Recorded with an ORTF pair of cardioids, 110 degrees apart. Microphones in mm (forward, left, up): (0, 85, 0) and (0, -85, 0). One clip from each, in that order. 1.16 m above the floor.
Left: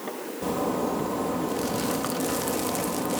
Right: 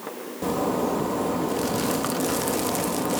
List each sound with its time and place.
0.4 s a zipper: 15° right